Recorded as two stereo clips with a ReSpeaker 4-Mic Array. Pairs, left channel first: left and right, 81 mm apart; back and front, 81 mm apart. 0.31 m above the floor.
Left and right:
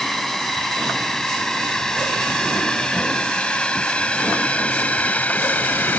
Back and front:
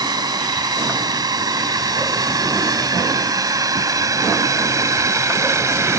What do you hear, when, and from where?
0.0 s a drone: 5° left; by 6.0 s 30° left